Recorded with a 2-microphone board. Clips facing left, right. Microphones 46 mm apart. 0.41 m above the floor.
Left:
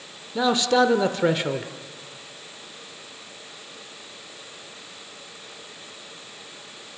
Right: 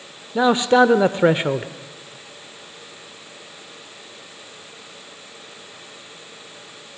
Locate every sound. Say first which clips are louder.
0.3 s a man speaking: right 5 dB; 25° right (ahead or behind), 0.9 m